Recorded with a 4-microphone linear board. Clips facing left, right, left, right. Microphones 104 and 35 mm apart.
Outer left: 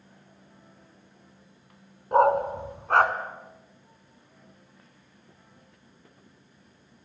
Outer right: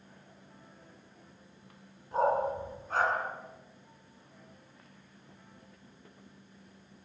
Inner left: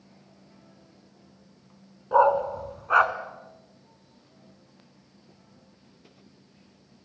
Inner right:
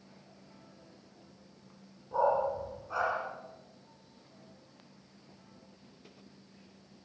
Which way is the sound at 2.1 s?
70° left (ahead or behind).